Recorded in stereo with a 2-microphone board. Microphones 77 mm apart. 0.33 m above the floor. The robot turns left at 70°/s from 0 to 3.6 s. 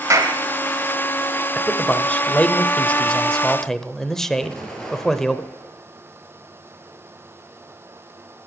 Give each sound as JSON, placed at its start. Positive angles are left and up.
{"t": 0.1, "sound": "a clap", "side_deg": -45, "distance_m": 1.7}
{"t": 1.6, "sound": "a man speaking", "side_deg": 5, "distance_m": 0.9}
{"t": 4.4, "sound": "an explosion", "side_deg": 10, "distance_m": 2.5}